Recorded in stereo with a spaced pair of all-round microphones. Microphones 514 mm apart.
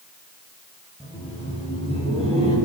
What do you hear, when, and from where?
1.0 s laughter: 10° right (ahead or behind), 8 m; by 2.6 s 15° right (ahead or behind), 8.5 m